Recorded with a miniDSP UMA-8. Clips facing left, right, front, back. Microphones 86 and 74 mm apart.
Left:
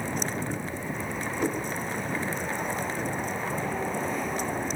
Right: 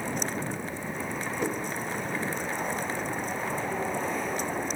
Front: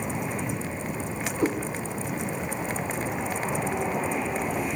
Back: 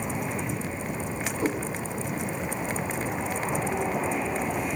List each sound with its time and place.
1.4 s a cat meowing: 15° left, 2.5 m